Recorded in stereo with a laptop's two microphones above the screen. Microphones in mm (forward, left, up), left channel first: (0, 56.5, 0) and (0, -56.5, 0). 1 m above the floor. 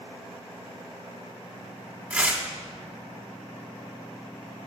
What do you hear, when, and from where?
2.1 s tearing paper: 15° right (ahead or behind), 1.2 m